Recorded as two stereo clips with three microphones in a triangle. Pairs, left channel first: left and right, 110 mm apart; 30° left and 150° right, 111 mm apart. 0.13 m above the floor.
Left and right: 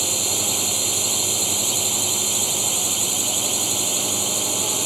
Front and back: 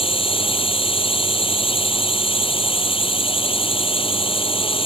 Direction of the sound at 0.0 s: Straight ahead.